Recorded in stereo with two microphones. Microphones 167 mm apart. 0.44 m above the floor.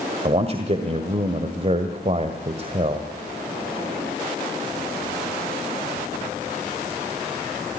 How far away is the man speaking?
About 1.7 m.